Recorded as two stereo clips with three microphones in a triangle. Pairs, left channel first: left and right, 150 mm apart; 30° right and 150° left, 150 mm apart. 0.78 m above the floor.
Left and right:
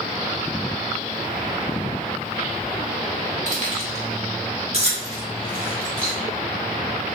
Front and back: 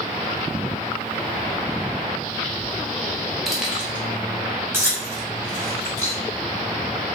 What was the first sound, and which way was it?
Keys jangling, 120° right.